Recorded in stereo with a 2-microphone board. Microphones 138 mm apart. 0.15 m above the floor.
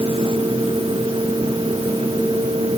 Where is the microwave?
No microwave in this recording.